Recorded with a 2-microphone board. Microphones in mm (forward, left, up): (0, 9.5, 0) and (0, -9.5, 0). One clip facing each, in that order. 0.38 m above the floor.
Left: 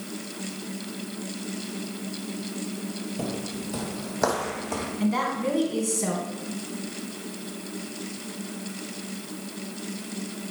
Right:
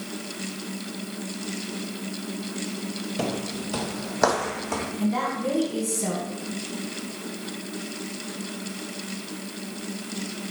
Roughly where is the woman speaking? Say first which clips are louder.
Left 1 dB; centre.